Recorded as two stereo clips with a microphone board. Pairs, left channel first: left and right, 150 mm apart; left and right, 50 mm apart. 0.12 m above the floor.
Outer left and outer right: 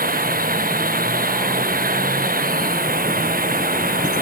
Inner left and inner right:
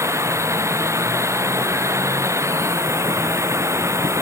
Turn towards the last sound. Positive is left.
turn(degrees=-65)  # may be behind; listen again after turning